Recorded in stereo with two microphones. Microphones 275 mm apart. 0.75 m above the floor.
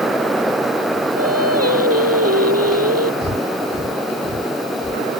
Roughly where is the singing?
Right.